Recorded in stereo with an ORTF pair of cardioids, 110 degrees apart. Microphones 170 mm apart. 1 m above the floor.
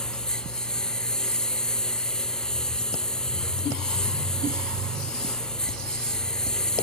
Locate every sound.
0.0 s a lawn mower: 5° left